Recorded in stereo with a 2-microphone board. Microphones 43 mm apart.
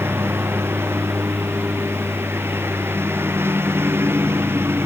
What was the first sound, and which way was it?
A lawn mower, 70° right (ahead or behind).